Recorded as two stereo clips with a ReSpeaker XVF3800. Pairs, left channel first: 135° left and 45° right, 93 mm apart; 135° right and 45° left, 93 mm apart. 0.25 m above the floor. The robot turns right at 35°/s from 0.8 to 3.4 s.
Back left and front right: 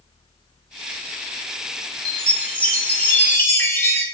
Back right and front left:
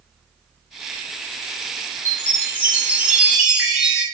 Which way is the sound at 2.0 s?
65° left.